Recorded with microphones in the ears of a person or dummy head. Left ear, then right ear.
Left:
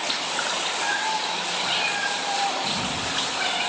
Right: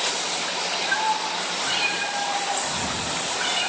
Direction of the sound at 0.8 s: 25° left (ahead or behind).